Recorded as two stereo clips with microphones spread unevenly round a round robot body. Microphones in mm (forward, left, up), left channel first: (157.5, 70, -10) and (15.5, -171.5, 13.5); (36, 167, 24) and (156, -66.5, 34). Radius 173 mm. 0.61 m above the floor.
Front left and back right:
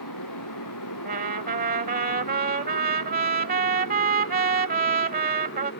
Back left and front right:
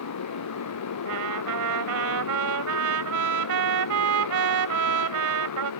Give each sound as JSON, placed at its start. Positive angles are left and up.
{"t": 0.0, "sound": "a motorcycle", "azimuth_deg": 100}
{"t": 1.1, "sound": "a trumpet", "azimuth_deg": -60}